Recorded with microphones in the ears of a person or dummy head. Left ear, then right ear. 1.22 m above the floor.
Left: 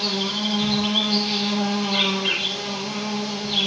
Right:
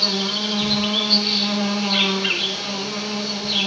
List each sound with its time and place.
0.0 s an insect: 65° right (ahead or behind), 3 m